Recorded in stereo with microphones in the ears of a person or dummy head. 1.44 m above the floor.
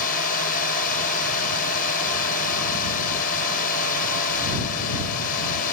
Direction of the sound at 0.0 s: 50° left (ahead or behind).